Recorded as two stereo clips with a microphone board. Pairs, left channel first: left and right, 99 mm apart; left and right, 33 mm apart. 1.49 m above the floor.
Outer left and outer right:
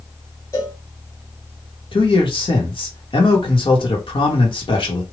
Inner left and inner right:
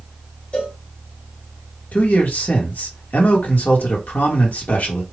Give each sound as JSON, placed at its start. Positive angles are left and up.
{"t": 0.5, "sound": "a cowbell", "side_deg": 35, "distance_m": 1.5}
{"t": 1.9, "sound": "a man speaking", "side_deg": 55, "distance_m": 1.2}